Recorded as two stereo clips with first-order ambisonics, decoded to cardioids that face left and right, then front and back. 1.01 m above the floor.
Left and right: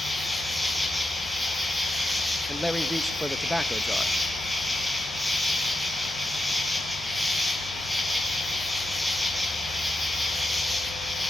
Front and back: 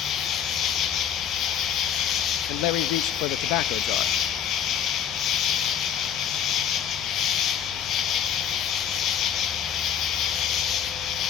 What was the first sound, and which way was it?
An insect, straight ahead.